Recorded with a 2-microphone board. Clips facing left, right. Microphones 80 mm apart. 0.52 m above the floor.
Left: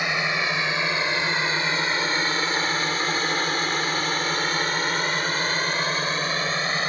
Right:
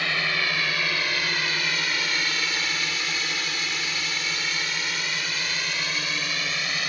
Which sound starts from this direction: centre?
A drone, at 0.0 s.